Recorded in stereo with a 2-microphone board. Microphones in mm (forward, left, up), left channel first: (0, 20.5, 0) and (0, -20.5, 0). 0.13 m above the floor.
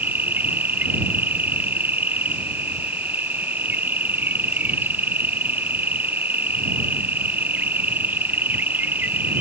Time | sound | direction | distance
0.0 | an insect | 50° right (ahead or behind) | ?